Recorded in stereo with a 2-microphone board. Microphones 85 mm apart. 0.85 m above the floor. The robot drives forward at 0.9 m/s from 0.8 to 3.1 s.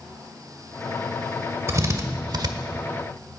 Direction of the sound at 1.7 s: 40° right (ahead or behind).